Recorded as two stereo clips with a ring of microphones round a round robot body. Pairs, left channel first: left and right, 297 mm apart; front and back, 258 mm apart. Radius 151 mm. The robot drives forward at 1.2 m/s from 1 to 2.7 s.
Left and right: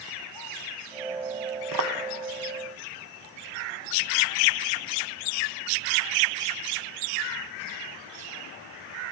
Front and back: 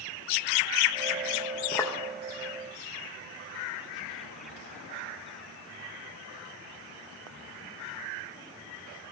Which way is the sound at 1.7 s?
65° right.